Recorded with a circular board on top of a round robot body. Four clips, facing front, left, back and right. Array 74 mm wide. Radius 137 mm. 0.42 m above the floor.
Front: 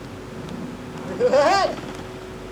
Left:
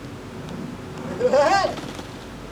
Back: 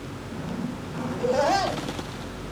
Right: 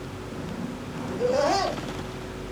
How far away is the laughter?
About 2.5 m.